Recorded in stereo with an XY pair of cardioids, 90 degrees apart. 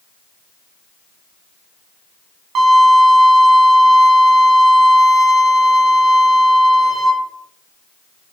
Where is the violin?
70° right, 0.6 m.